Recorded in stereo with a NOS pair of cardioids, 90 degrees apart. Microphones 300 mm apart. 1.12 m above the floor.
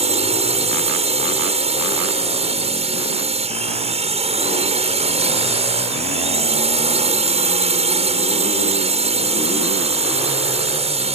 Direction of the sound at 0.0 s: 20° right.